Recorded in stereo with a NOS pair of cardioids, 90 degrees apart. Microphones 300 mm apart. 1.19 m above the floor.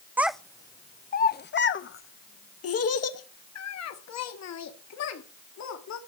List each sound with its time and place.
0.2 s a child speaking: 5° right, 0.7 m; by 6.0 s 65° left, 3 m